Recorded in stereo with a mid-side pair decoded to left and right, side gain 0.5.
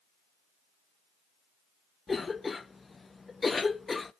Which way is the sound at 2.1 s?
25° left.